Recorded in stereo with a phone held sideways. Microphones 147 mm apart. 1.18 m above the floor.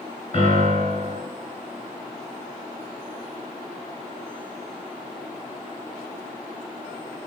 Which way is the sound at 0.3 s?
50° left (ahead or behind).